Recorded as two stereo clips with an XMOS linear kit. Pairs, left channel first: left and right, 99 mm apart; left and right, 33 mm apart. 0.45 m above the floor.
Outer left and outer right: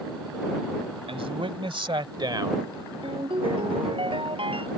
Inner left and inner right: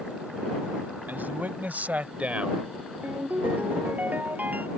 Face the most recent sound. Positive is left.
turn(degrees=-65)  # may be behind; listen again after turning